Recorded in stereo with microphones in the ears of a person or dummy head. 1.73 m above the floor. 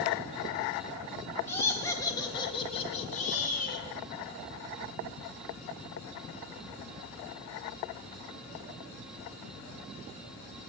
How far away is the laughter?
About 4 m.